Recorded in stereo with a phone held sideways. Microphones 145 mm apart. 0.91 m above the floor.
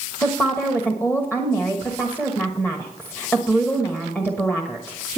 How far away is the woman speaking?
About 1.2 m.